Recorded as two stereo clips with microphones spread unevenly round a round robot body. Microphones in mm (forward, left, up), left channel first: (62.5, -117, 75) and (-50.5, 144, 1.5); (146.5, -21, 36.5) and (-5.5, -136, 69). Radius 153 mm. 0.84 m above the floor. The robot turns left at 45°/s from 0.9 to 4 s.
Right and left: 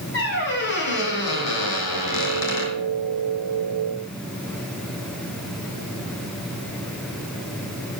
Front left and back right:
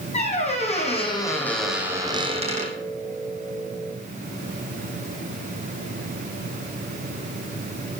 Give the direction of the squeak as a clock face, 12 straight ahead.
1 o'clock.